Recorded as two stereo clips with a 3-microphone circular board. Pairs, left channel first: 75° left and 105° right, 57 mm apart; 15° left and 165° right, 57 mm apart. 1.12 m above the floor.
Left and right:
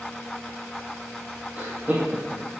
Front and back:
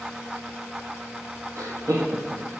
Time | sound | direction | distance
1.6 | laughter | 160° right | 2.5 m